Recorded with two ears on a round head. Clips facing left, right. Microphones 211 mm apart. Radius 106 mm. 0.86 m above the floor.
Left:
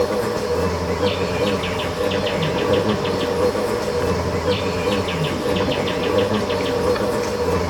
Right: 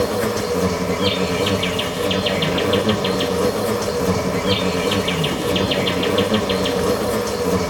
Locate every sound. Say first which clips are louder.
0.0 s an insect: even; 40° right (ahead or behind), 1.3 m